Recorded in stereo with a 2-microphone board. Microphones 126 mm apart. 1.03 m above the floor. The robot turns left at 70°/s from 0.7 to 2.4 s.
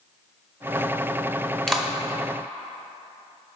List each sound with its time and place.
1.7 s a clap: 5° left (ahead or behind), 0.7 m; by 1.9 s 10° right (ahead or behind), 0.7 m